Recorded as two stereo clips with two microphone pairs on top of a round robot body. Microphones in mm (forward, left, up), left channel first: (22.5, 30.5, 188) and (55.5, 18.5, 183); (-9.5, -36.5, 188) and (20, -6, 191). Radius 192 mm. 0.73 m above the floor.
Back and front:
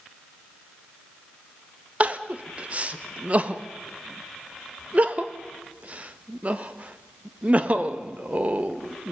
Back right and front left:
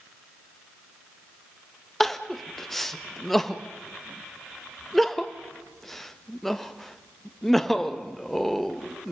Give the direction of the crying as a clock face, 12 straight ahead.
2 o'clock.